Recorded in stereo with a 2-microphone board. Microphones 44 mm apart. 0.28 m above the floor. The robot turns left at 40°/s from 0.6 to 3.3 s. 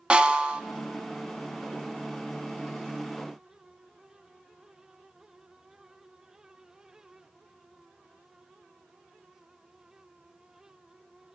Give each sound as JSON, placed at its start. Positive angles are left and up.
{"t": 0.1, "sound": "a snare drum", "side_deg": -25, "distance_m": 0.8}